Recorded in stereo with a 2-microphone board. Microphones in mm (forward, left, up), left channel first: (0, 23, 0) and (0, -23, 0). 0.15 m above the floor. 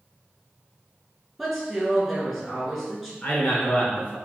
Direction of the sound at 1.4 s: 5° right (ahead or behind).